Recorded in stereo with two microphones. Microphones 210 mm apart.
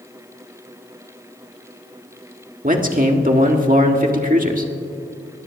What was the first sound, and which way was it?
A man speaking, 40° right (ahead or behind).